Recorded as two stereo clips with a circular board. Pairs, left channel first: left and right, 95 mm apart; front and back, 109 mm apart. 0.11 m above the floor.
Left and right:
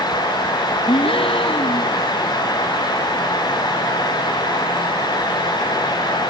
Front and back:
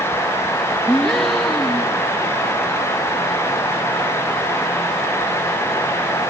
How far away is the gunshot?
I don't hear a gunshot.